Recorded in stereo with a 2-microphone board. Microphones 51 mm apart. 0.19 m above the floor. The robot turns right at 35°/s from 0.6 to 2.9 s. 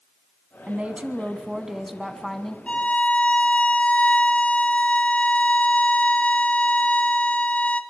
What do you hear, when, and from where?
0.7 s a woman speaking: 55° right, 1.5 m; by 2.6 s 15° left, 1.5 m
2.7 s a violin: 25° left (ahead or behind), 1.4 m